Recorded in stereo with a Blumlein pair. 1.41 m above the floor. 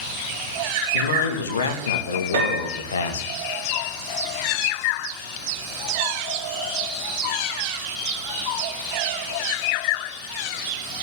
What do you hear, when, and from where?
0.9 s a man speaking: 70° left, 1.9 m
2.3 s a piano: 55° right, 3.5 m